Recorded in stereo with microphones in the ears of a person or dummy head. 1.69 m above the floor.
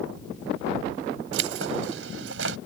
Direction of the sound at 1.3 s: 80° right.